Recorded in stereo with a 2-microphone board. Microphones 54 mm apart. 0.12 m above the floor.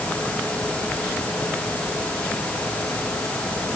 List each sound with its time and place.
Only background noise.